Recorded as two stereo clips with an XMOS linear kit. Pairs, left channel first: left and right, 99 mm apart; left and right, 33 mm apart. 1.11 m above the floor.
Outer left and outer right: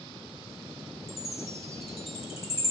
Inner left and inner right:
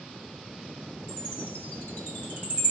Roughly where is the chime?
Left.